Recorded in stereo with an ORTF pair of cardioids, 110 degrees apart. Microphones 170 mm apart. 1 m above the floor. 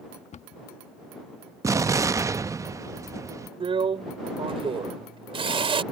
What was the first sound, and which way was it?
A cupboard door, 40° left.